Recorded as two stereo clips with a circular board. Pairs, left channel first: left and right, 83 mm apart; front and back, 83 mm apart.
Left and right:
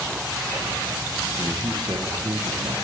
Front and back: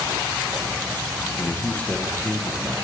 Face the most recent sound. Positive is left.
turn(degrees=-105)